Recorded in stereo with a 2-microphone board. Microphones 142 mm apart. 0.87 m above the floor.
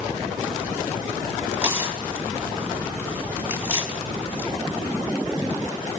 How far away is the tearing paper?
About 4.5 m.